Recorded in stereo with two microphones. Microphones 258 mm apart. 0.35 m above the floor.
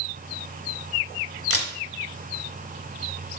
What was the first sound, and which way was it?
A camera shutter, 60° left (ahead or behind).